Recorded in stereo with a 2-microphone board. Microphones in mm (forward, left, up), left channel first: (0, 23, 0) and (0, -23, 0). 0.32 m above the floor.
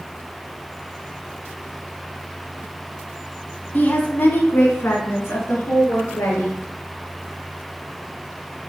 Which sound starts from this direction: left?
A woman speaking, at 3.7 s.